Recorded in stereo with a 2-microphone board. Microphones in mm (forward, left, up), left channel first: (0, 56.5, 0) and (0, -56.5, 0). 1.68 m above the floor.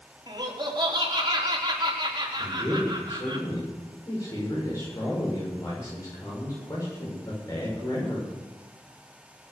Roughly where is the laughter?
Right.